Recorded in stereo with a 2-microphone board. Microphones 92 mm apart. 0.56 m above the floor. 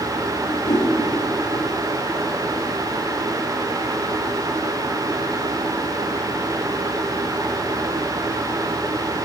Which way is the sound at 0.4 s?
80° left.